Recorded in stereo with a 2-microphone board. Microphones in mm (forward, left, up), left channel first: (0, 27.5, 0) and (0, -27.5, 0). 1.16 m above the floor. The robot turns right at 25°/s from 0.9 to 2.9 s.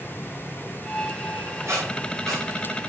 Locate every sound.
1.7 s a squeak: 55° right (ahead or behind), 7.5 m; by 2.4 s 75° right (ahead or behind), 7.5 m